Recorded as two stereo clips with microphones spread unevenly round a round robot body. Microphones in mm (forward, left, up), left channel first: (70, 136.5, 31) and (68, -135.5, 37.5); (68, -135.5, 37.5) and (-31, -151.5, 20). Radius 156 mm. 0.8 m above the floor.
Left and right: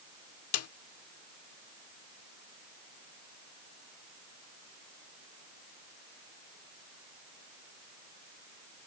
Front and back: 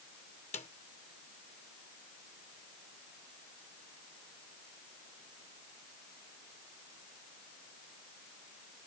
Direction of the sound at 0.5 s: 55° left.